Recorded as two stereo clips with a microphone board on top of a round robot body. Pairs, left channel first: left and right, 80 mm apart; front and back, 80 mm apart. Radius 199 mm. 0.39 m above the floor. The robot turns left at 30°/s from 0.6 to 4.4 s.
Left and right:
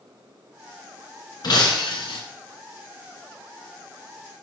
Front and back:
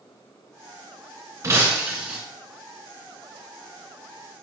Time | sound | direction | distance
1.4 | breaking glass | 125° left | 2.5 m